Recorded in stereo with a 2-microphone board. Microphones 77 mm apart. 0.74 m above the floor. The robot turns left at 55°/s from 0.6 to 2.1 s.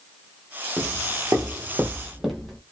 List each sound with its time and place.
0.8 s footsteps: 20° right (ahead or behind), 1.0 m; by 2.6 s 5° left (ahead or behind), 1.3 m